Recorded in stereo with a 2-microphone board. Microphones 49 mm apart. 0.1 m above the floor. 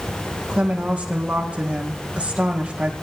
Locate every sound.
0.5 s a woman speaking: 20° right (ahead or behind), 3 m